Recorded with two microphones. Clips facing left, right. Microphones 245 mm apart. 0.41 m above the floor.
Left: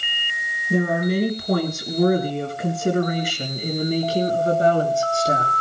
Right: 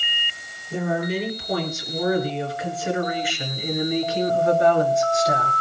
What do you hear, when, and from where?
0.7 s a woman speaking: 65° left (ahead or behind), 6 m; by 5.5 s 25° left (ahead or behind), 6.5 m